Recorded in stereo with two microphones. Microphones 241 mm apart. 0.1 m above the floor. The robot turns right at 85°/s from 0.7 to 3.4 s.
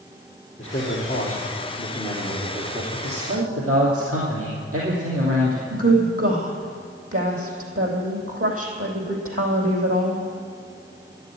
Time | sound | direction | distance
0.6 | a man speaking | 30° left | 3.5 m
2.9 | a man speaking | 140° right | 3 m
5.7 | a woman speaking | 70° right (ahead or behind) | 3.5 m